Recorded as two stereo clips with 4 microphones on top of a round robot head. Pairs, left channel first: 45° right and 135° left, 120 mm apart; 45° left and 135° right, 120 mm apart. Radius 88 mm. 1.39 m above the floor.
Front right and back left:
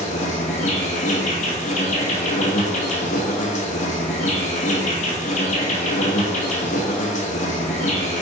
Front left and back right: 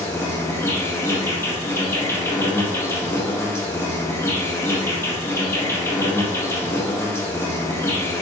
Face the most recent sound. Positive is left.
turn(degrees=-25)